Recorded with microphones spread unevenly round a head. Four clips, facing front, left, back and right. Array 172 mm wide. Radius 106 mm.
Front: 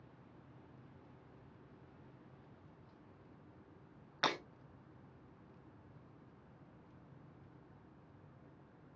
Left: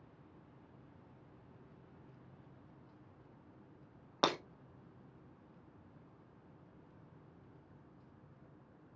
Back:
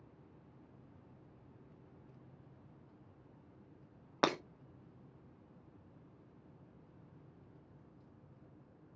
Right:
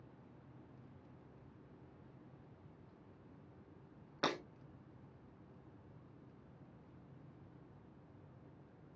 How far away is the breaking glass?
About 0.6 m.